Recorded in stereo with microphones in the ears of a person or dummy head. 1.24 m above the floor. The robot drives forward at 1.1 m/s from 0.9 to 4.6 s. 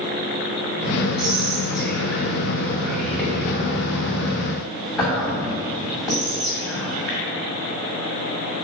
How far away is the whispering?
About 2.5 m.